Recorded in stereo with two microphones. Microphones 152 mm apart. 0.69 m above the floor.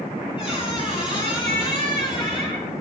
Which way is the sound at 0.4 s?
35° left (ahead or behind).